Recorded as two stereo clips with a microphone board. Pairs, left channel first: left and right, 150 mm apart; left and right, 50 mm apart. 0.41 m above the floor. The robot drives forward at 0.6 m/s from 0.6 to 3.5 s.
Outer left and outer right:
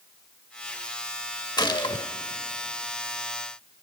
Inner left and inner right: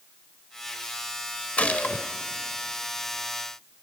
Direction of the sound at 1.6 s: 30° left (ahead or behind).